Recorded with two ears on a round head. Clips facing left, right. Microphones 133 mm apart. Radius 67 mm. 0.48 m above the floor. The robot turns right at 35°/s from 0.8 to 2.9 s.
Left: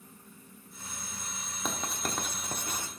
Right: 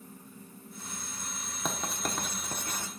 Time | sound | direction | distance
1.6 | writing | 5° right (ahead or behind) | 1.0 m